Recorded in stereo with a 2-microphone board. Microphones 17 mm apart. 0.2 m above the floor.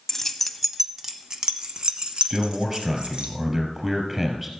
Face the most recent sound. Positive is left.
turn(degrees=-25)  # may be behind; listen again after turning